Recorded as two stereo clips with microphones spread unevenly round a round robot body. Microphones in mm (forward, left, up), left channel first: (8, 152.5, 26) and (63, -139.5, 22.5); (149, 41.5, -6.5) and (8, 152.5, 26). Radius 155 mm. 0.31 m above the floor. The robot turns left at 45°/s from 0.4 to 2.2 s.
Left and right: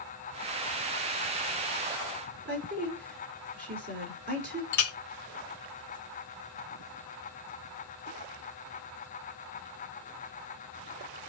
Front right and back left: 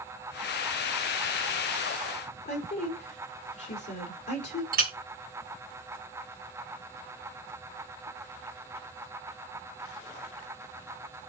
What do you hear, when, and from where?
2.5 s a woman speaking: 25° right, 5 m
4.7 s a clink: 105° left, 1.2 m